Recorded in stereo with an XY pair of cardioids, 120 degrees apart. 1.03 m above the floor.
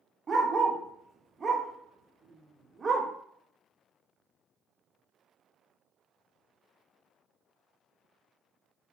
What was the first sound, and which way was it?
A dog barking, 30° right.